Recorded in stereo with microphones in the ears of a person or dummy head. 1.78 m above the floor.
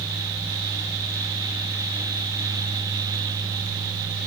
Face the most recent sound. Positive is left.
No sound to turn to.